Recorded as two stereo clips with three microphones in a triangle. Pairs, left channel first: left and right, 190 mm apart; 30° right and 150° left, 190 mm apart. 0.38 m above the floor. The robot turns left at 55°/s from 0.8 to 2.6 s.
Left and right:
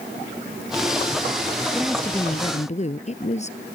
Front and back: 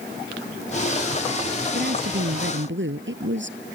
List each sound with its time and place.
1.7 s a woman speaking: 170° right; by 3.8 s 145° left